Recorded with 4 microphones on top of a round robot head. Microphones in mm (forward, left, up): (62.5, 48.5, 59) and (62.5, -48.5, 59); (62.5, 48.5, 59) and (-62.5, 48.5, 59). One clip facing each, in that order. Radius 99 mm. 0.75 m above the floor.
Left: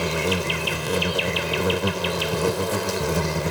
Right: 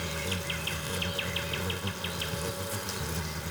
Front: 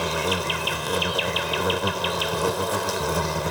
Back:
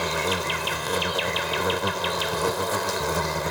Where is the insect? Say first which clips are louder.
Left 12 dB, front 1 dB; 85° left.